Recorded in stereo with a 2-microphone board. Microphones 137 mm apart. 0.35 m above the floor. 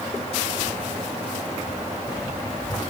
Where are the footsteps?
80° right, 1.4 m; by 2.8 s 70° right (ahead or behind), 5 m.